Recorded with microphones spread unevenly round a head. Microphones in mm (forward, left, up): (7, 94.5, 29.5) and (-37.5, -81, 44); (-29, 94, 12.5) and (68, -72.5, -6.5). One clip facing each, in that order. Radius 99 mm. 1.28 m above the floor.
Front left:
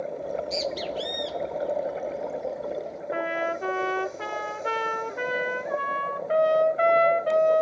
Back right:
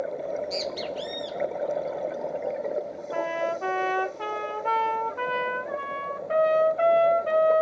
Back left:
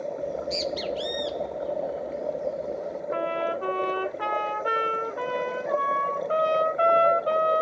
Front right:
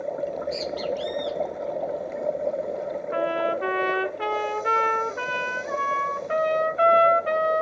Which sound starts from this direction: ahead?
A trumpet, at 3.1 s.